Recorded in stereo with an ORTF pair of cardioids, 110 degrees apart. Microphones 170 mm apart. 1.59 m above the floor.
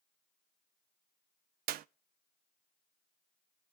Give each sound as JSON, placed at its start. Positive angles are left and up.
{"t": 1.7, "sound": "a clap", "azimuth_deg": -65, "distance_m": 0.5}